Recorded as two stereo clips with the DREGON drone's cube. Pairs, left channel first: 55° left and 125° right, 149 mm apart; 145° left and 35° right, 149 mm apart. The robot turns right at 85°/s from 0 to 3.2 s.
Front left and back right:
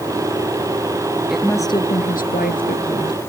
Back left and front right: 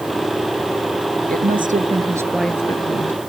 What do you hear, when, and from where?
1.3 s a woman speaking: 40° right; by 3.2 s 125° left